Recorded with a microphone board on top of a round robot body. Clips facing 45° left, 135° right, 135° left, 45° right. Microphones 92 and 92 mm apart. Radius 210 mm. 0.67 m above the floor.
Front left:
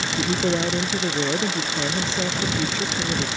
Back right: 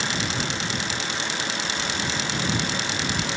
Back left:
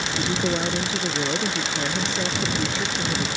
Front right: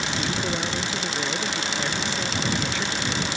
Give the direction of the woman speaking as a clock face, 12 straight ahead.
10 o'clock.